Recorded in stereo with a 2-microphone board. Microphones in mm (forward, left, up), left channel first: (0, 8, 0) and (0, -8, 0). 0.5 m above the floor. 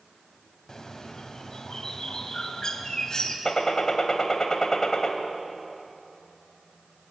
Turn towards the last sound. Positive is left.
turn(degrees=35)  # may be behind; listen again after turning